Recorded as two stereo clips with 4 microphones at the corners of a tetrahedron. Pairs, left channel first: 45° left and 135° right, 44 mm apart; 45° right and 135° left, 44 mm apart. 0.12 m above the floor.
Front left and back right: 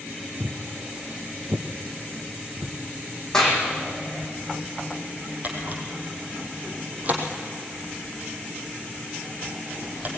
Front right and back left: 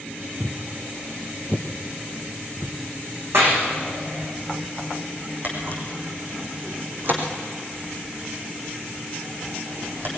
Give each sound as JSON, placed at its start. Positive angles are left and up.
{"t": 0.4, "sound": "footsteps", "azimuth_deg": -155, "distance_m": 1.2}
{"t": 3.3, "sound": "a clap", "azimuth_deg": 120, "distance_m": 6.5}
{"t": 5.4, "sound": "a camera shutter", "azimuth_deg": 175, "distance_m": 4.0}